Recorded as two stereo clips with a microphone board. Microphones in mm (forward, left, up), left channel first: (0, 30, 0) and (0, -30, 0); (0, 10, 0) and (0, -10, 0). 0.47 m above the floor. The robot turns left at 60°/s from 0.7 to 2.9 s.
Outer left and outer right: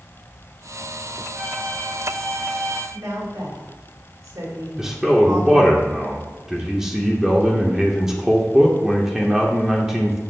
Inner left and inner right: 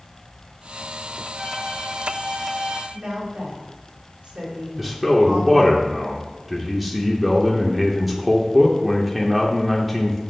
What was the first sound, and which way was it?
A violin, 30° right.